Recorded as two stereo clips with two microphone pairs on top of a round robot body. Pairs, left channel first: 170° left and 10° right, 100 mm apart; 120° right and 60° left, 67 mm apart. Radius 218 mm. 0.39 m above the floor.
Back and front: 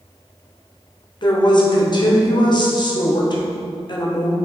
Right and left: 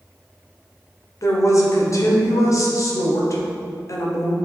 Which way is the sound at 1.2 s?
155° right.